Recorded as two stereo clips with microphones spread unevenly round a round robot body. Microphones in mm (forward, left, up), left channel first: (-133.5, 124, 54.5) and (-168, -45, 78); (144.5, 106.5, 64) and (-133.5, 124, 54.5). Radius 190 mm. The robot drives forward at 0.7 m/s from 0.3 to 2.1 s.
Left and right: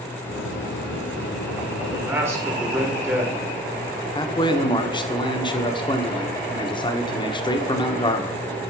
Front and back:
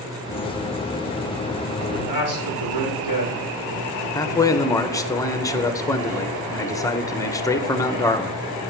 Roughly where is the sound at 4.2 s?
Left.